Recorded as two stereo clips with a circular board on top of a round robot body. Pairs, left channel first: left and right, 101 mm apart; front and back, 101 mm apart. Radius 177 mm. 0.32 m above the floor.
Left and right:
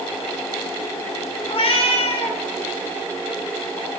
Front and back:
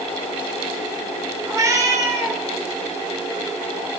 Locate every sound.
1.5 s a cat meowing: 120° left, 1.1 m